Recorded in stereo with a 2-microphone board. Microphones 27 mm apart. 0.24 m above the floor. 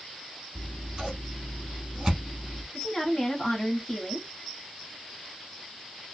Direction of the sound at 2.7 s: 10° left (ahead or behind).